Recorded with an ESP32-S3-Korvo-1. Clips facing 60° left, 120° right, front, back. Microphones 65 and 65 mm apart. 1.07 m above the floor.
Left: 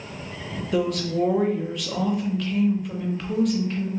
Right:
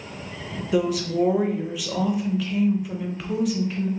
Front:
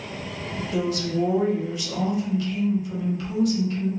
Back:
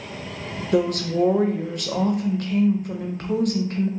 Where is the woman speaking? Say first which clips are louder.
Right 2 dB, back 5 dB; 155° left, 0.6 m.